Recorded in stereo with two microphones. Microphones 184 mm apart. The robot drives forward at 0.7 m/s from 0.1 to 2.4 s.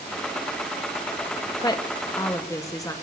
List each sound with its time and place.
1.6 s a woman speaking: 20° left (ahead or behind), 0.5 m; by 2.9 s 15° left (ahead or behind), 0.7 m